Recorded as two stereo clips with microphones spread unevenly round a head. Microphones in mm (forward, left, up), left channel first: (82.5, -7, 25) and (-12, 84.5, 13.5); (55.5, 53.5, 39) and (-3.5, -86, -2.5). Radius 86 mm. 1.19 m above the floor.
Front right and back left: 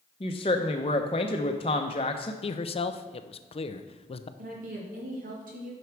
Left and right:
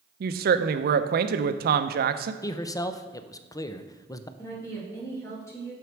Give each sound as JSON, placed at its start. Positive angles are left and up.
{"t": 0.2, "sound": "a woman speaking", "azimuth_deg": -105, "distance_m": 0.7}
{"t": 2.4, "sound": "a man speaking", "azimuth_deg": -10, "distance_m": 0.6}
{"t": 4.4, "sound": "a woman speaking", "azimuth_deg": 145, "distance_m": 2.0}